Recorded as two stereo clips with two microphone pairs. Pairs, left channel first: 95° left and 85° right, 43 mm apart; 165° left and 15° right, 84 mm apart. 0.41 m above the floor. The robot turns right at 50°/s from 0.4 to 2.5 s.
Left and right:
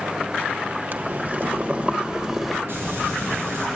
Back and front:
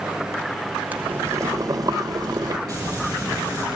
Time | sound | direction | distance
0.9 | boiling | 80° right | 1.2 m
2.7 | frying | 60° right | 7.5 m